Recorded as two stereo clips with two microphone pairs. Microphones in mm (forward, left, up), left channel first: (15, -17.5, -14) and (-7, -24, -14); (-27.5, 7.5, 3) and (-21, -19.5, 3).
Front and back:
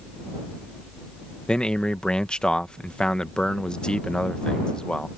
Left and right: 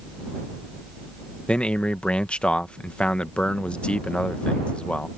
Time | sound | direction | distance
1.5 | a man speaking | 65° left | ?